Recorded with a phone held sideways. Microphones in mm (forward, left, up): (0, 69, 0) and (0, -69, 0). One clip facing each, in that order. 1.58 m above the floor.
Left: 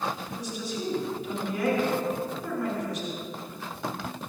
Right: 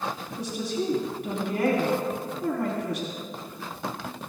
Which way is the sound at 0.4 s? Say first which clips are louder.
Right 8 dB; 80° right.